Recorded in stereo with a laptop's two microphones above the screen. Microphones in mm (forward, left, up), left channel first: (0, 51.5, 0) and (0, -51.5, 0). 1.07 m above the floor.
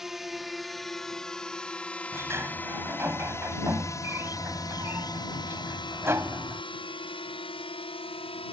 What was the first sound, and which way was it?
A drone, 5° right (ahead or behind).